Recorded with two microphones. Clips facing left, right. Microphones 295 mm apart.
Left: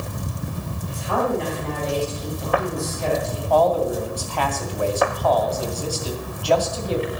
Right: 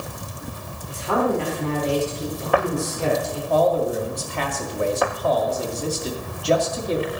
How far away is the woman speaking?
About 4 m.